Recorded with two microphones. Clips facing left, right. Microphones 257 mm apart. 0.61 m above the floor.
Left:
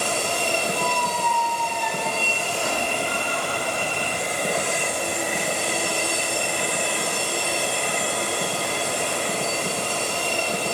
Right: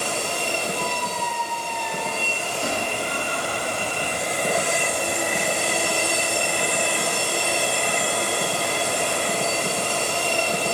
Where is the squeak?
40° right (ahead or behind), 5.5 m.